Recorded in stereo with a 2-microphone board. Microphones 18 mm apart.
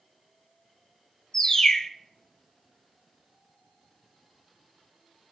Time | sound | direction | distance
1.3 | a bird | 35° left (ahead or behind) | 0.6 m